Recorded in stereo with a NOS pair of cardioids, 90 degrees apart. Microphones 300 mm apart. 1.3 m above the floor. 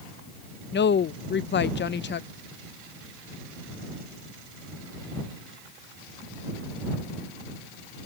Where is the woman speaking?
35° left.